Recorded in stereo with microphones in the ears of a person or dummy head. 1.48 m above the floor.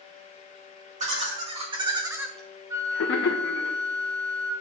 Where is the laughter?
35° right (ahead or behind), 2 m; by 3.7 s 70° left (ahead or behind), 1.3 m.